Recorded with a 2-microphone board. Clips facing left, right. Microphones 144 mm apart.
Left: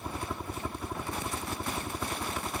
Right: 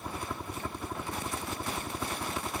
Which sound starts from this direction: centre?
A helicopter, at 0.0 s.